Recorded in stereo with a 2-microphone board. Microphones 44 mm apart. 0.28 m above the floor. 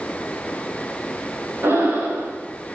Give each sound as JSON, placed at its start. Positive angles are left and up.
{"t": 1.6, "sound": "breathing", "side_deg": -65, "distance_m": 9.5}